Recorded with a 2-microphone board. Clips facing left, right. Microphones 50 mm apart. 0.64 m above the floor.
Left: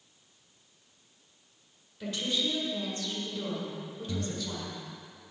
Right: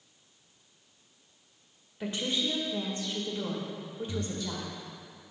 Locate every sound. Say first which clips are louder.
2.0 s a woman speaking: even; 30° right (ahead or behind), 2.0 m
4.1 s breathing: left 1 dB; 50° left (ahead or behind), 0.5 m